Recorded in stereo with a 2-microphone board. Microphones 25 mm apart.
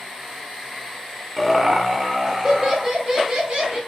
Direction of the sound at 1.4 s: Centre (ahead or behind).